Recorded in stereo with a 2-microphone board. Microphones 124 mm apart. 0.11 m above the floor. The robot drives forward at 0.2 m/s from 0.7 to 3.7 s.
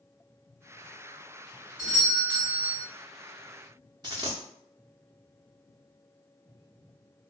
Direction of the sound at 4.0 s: 35° right (ahead or behind).